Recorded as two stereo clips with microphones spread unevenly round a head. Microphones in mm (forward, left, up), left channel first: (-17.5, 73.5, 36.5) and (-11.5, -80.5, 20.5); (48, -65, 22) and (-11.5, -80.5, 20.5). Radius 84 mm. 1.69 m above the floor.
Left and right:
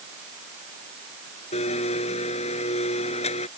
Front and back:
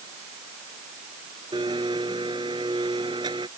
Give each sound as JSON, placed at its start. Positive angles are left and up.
{"t": 1.5, "sound": "a blender", "azimuth_deg": 140}